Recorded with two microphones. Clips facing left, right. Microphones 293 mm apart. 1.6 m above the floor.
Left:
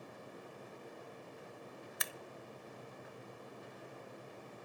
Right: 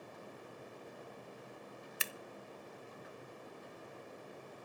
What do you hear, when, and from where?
2.0 s scissors: 35° right (ahead or behind), 0.8 m